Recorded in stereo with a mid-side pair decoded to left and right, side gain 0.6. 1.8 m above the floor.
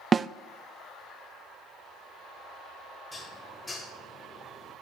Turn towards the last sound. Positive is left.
turn(degrees=20)